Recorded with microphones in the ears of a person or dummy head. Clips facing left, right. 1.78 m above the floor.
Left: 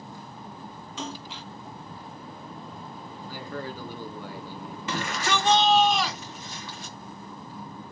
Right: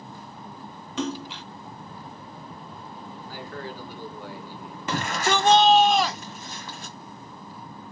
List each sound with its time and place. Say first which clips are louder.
1.0 s a splash: right 8 dB; 50° right (ahead or behind), 1.3 m
3.3 s a man speaking: left 2 dB; 85° left, 1.2 m
4.9 s a shout: right 3 dB; 35° right (ahead or behind), 0.6 m